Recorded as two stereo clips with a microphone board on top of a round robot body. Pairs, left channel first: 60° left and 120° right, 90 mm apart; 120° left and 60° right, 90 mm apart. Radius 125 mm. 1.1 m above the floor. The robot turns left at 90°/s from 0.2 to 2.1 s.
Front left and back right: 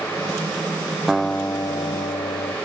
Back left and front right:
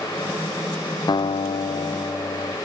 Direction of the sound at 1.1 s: 155° left.